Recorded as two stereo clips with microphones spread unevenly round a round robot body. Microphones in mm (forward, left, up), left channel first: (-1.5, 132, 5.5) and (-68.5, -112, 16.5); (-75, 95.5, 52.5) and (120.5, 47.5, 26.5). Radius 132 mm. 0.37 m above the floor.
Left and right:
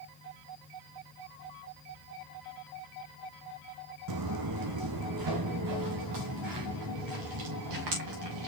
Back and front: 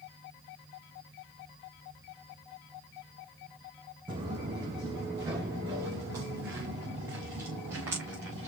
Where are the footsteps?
90° right, 1.2 m; by 8.5 s 95° right, 4 m.